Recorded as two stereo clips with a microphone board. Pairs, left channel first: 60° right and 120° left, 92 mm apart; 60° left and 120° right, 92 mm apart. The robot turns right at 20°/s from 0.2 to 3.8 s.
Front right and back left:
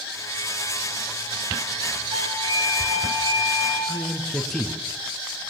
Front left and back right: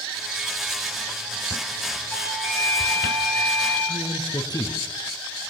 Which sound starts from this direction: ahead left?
A man speaking, at 3.9 s.